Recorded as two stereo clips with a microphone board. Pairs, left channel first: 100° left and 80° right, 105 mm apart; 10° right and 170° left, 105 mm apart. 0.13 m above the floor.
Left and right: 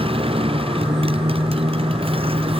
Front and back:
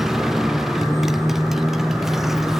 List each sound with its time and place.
0.0 s a motorcycle: 105° right